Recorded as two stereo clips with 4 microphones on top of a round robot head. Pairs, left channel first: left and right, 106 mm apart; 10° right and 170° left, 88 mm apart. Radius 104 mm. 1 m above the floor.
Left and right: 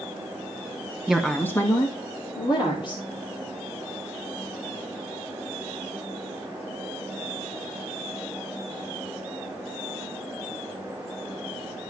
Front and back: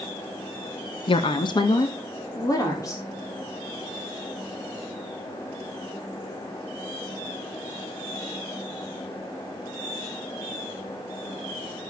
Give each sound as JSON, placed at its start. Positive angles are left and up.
{"t": 1.1, "sound": "a woman speaking", "azimuth_deg": -5, "distance_m": 1.0}